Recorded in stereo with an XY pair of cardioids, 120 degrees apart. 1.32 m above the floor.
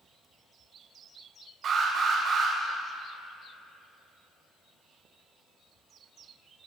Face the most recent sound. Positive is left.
turn(degrees=-60)